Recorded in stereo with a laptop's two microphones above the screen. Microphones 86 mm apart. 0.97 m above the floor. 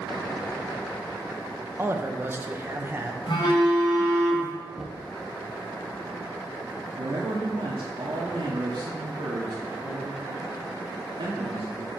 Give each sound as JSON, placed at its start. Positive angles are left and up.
{"t": 1.8, "sound": "a man speaking", "side_deg": -25, "distance_m": 0.7}
{"t": 3.3, "sound": "a phone buzzing", "side_deg": 75, "distance_m": 1.8}
{"t": 4.7, "sound": "knocking", "side_deg": -5, "distance_m": 1.1}
{"t": 7.0, "sound": "a man speaking", "side_deg": -70, "distance_m": 1.5}